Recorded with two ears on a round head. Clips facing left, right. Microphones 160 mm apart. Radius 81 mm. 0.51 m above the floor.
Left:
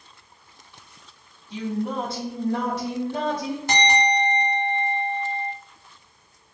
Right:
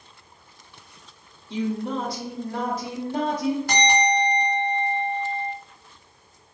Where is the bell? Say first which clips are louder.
Left 3 dB; 20° left (ahead or behind), 1.1 m.